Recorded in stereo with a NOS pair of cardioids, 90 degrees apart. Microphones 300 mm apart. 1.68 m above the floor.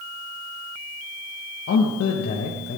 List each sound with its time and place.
1.7 s a man speaking: 55° left, 2.5 m